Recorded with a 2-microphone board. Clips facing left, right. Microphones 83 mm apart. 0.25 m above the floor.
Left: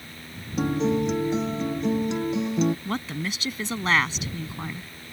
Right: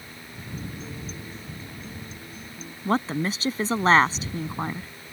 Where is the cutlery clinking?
No cutlery clinking in this recording.